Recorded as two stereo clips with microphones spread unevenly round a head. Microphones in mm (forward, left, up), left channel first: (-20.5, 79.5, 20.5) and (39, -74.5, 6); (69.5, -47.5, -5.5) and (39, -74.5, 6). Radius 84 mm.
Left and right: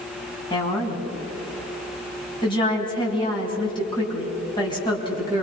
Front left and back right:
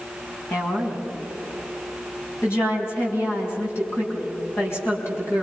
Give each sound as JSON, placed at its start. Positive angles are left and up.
{"t": 0.5, "sound": "a woman speaking", "azimuth_deg": 50, "distance_m": 6.0}